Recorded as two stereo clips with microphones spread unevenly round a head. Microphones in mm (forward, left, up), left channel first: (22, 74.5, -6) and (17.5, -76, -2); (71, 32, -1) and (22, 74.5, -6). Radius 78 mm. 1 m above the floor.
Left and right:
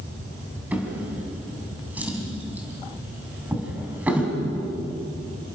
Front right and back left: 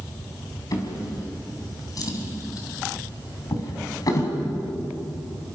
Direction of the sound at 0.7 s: 10° right.